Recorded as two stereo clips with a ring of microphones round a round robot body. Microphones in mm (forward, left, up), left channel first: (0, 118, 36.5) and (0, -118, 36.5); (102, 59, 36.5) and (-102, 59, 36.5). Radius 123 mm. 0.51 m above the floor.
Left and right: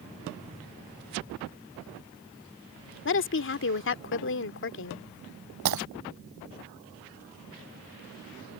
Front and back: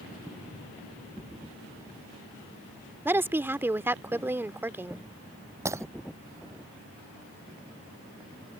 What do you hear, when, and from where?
3.0 s a woman speaking: 105° left
5.7 s breaking glass: 100° right